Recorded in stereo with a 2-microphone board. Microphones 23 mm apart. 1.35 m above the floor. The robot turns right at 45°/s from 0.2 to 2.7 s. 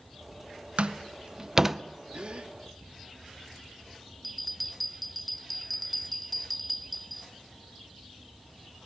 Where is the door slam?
60° right (ahead or behind), 0.6 m; by 1.8 s 15° right (ahead or behind), 0.6 m.